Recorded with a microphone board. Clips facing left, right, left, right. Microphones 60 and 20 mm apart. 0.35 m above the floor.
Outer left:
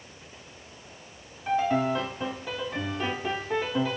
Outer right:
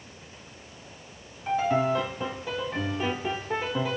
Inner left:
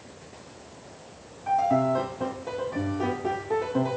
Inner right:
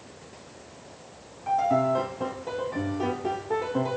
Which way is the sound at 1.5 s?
Centre (ahead or behind).